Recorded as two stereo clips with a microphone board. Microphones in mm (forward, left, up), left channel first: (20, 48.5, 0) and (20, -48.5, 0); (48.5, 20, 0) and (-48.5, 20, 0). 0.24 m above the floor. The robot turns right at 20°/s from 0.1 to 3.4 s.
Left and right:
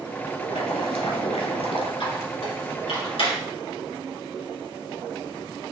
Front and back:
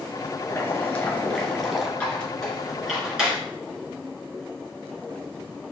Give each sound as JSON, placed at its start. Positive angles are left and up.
{"t": 0.4, "sound": "boiling", "azimuth_deg": 65, "distance_m": 1.0}
{"t": 2.0, "sound": "a squeak", "azimuth_deg": 75, "distance_m": 2.0}